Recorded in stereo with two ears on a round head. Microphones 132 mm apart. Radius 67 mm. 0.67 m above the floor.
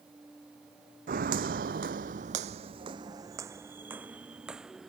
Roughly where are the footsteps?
Right.